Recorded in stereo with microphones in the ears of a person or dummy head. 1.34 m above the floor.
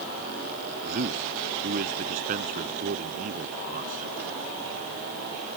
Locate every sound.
0.8 s a man speaking: 50° right (ahead or behind)